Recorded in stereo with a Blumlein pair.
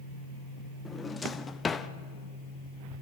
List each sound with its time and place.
0.8 s a drawer: 15° left, 0.8 m